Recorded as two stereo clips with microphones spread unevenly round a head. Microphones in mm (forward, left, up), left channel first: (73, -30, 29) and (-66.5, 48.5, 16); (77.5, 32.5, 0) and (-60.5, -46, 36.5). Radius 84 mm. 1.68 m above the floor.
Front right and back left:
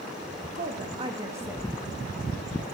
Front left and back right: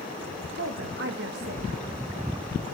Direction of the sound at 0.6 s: 165° right.